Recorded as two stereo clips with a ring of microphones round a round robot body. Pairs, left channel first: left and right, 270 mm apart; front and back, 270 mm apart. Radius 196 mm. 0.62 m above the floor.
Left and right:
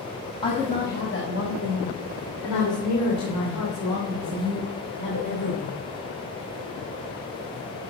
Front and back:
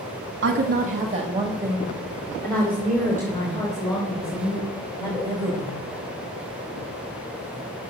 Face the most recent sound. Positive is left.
turn(degrees=70)